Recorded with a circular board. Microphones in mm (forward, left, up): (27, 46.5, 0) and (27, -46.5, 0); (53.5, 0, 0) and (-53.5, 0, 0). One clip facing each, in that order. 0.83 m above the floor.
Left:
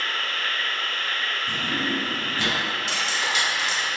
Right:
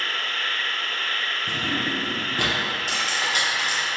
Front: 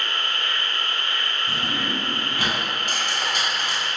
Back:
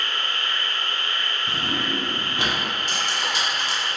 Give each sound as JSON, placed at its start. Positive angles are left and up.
{"t": 0.0, "sound": "an insect", "azimuth_deg": 15, "distance_m": 0.7}
{"t": 1.5, "sound": "a drawer", "azimuth_deg": -110, "distance_m": 0.6}
{"t": 2.9, "sound": "cutlery clinking", "azimuth_deg": -40, "distance_m": 1.1}